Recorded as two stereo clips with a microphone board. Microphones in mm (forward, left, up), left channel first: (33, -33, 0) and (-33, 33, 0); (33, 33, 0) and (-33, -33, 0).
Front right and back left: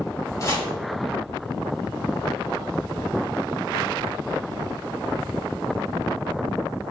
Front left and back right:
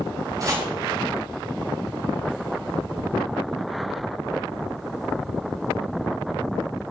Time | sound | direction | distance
0.4 | chopping | 90° right | 2.5 m